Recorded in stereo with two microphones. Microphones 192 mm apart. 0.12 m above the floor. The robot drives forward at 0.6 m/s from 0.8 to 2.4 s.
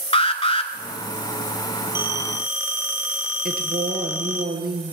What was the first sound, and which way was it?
An alarm, 30° left (ahead or behind).